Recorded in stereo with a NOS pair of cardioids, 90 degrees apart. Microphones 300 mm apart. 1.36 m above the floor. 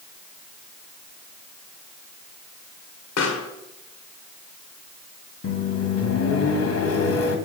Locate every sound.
3.2 s a pop: 55° left, 1.7 m
5.4 s a microwave: 55° left, 1.9 m